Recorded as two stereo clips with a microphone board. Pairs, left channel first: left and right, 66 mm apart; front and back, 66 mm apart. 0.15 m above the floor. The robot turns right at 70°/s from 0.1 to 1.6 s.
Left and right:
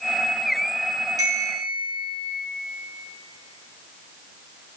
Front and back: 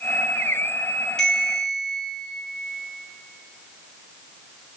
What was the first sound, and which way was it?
A bell, 80° right.